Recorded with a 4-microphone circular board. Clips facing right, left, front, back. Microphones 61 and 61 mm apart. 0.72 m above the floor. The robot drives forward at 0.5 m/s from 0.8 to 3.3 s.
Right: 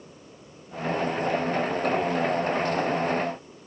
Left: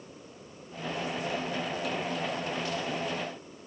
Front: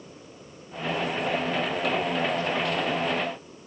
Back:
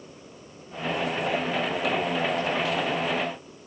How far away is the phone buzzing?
I don't hear a phone buzzing.